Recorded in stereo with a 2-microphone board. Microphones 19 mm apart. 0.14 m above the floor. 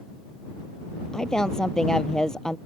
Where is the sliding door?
No sliding door in this recording.